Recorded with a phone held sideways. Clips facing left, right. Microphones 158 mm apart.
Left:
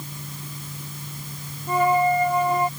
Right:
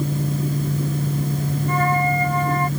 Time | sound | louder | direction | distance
0.0 | a fan | right 15 dB | 60° right (ahead or behind) | ?
1.7 | a flute | left 3 dB | 15° left (ahead or behind) | ?